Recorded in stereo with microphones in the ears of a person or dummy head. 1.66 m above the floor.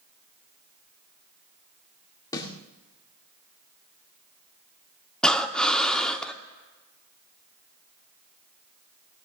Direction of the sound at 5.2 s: 5° left (ahead or behind).